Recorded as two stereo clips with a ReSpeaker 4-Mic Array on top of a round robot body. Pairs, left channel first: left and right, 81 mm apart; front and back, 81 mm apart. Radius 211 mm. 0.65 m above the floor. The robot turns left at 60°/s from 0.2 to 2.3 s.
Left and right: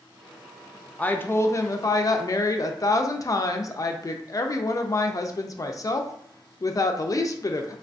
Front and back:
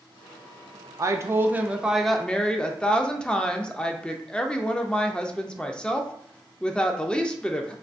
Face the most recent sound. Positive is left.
turn(degrees=75)